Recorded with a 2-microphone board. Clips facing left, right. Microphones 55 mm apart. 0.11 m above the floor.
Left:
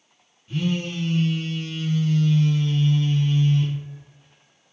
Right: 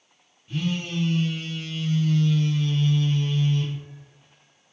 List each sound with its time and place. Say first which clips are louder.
0.5 s a phone buzzing: left 2 dB; 5° left (ahead or behind), 1.4 m